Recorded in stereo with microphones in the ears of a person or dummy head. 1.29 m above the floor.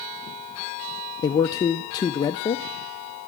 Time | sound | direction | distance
1.2 | a man speaking | 20° left (ahead or behind) | 0.5 m